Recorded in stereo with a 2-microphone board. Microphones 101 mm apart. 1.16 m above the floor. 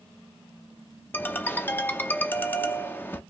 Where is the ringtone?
20° left (ahead or behind), 0.6 m.